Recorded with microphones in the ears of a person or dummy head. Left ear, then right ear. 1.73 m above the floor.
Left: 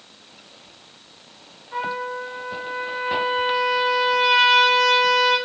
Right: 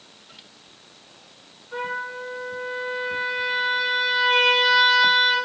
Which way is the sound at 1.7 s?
5° right (ahead or behind).